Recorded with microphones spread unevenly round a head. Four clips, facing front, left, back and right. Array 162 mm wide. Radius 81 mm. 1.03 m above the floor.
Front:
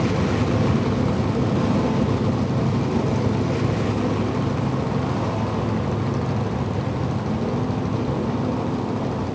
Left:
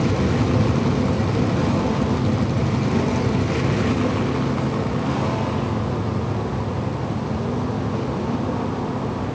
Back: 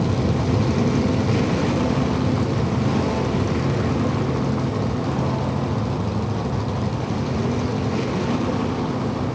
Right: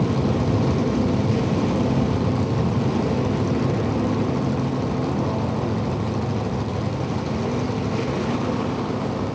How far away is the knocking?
I don't hear knocking.